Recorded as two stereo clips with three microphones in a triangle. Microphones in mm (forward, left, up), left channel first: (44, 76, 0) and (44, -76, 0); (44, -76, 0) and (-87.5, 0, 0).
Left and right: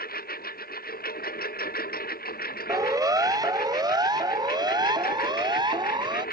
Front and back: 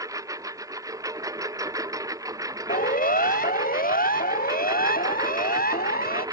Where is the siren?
25° right; by 6.2 s 30° right.